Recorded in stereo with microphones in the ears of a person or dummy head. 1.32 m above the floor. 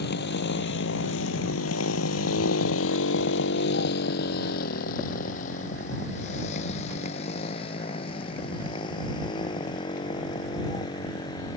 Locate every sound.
0.0 s a motorcycle: 60° left (ahead or behind); by 11.6 s 25° left (ahead or behind)